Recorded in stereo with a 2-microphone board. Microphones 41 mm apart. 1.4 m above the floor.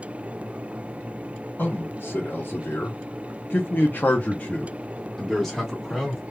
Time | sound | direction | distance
1.6 | a man speaking | 60° left (ahead or behind) | 1.7 m